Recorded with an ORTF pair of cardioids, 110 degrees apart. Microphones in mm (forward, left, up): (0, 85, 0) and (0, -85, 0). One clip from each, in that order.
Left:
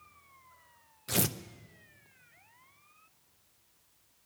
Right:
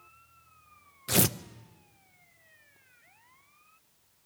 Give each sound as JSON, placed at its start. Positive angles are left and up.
{"t": 1.1, "sound": "tearing paper", "azimuth_deg": -20, "distance_m": 0.5}